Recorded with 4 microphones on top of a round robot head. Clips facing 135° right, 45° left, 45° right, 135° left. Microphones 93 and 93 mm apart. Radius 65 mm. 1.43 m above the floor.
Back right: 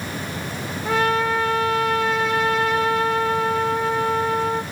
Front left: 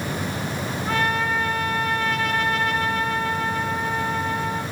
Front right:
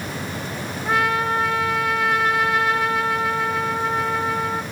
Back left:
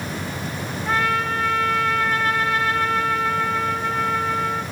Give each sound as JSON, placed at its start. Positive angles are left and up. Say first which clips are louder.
{"t": 0.8, "sound": "a trumpet", "louder": "back right 4 dB, front right 1 dB", "azimuth_deg": -125, "distance_m": 2.0}